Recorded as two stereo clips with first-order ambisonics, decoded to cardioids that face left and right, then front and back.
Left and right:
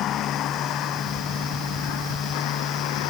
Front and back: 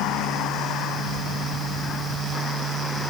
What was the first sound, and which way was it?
A vehicle, 40° left.